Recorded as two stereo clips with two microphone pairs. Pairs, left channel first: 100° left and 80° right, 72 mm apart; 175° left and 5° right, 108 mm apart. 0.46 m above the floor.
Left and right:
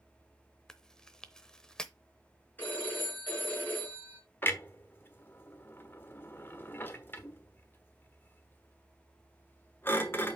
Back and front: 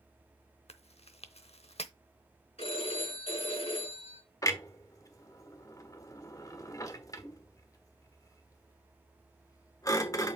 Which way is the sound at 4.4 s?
140° left.